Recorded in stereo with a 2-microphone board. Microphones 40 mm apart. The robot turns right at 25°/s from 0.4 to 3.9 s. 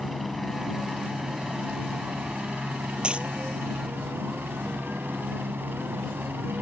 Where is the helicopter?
Straight behind; by 6.6 s 95° right.